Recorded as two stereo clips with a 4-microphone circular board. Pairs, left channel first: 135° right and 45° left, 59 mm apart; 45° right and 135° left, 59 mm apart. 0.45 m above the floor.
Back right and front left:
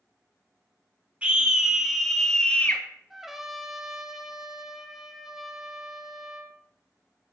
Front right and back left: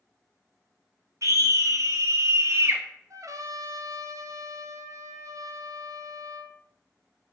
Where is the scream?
110° left, 2 m; by 2.8 s 170° left, 1.3 m.